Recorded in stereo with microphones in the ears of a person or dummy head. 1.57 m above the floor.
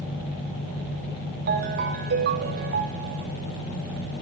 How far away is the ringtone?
About 1.5 m.